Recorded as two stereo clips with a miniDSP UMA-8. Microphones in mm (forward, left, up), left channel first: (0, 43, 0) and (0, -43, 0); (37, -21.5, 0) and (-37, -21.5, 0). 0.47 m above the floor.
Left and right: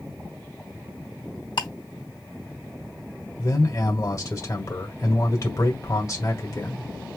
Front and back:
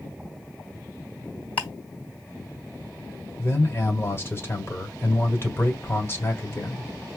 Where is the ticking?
70° left, 2 m.